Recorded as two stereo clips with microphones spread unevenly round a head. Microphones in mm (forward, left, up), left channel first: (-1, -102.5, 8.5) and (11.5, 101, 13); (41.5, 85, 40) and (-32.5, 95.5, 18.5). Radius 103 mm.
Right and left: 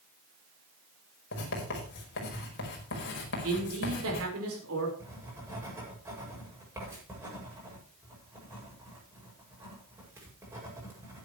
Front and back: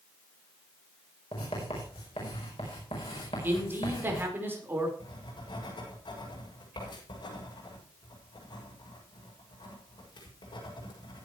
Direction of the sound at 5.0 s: 10° left.